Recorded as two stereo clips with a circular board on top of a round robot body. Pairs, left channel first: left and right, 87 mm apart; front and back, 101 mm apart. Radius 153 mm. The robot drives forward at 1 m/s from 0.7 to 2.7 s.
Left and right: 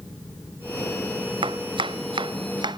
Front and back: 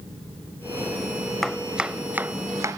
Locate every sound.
1.4 s chopping: 90° right; by 2.8 s 120° right